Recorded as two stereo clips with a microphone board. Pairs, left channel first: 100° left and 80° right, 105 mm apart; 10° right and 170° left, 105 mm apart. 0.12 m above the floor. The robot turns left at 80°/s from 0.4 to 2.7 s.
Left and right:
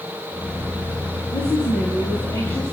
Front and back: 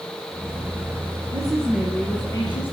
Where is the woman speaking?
125° left, 3 m; by 2.7 s 15° left, 3 m.